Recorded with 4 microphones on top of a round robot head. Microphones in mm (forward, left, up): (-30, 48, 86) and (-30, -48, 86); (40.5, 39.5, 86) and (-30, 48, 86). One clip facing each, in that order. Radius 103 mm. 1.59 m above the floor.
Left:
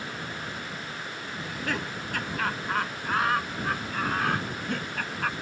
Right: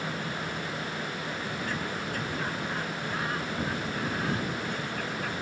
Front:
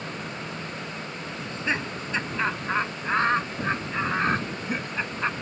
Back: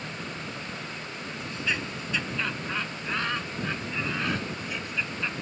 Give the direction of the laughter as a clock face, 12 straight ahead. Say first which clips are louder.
Left 5 dB, front 3 dB; 10 o'clock.